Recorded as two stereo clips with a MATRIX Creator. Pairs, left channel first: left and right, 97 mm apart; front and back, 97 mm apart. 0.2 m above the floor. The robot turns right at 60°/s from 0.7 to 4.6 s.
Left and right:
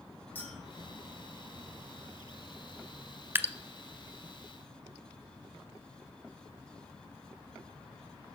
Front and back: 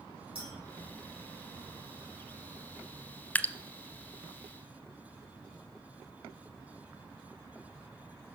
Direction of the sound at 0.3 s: 160° left.